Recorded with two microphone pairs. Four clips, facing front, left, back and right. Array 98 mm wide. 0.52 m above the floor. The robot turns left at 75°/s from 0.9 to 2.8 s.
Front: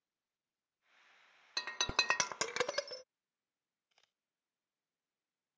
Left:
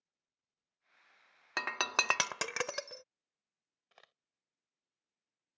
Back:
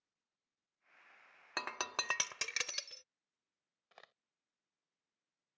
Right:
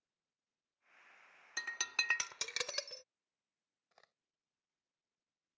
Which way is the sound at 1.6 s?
115° left.